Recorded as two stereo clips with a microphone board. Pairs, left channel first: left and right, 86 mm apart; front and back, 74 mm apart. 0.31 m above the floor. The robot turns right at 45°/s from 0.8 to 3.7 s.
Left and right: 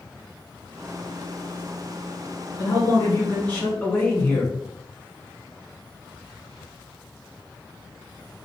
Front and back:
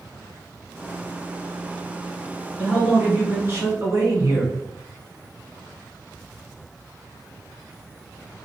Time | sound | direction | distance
2.6 | a man speaking | 105° left | 1.7 m